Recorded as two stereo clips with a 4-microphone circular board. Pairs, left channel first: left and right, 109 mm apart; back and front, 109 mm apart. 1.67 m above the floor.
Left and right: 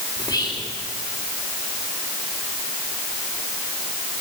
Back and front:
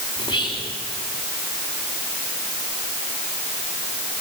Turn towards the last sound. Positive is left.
turn(degrees=150)